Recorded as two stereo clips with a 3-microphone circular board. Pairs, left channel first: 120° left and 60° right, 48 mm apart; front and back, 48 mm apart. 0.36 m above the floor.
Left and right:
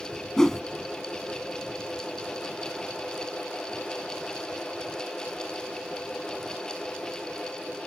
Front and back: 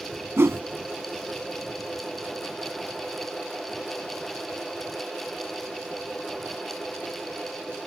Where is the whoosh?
165° right.